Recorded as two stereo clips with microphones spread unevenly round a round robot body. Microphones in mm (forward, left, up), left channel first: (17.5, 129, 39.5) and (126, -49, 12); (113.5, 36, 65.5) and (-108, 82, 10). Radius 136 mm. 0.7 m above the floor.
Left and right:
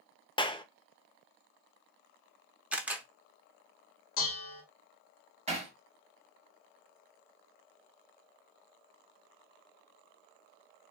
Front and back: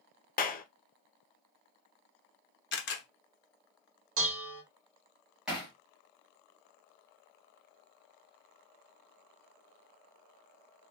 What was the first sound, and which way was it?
A clap, 50° left.